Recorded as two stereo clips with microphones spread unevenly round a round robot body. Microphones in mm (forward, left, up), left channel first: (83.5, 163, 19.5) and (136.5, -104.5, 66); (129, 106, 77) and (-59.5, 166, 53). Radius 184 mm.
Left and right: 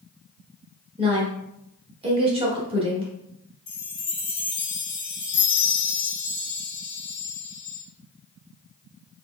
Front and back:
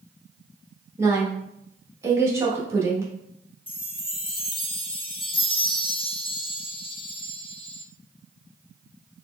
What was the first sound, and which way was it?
A woman speaking, 150° right.